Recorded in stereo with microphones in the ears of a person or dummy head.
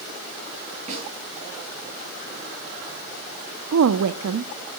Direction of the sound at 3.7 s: 85° right.